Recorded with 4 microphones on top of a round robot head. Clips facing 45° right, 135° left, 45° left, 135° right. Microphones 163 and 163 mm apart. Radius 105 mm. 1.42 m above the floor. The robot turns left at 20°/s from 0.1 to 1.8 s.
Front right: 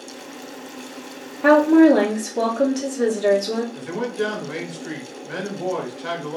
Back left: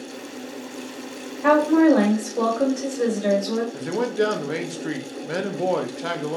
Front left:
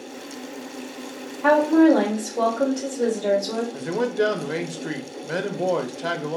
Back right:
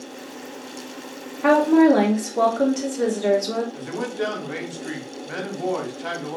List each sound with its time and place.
1.4 s a woman speaking: 85° right, 1.2 m; by 3.6 s 95° right, 1.2 m
3.7 s a man speaking: 95° left, 0.6 m